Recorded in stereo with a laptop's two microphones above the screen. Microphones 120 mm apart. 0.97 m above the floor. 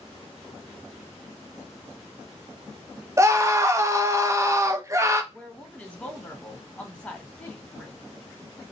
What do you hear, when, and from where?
3.2 s a scream: 25° right (ahead or behind), 0.8 m
5.3 s a woman speaking: 10° left (ahead or behind), 1.5 m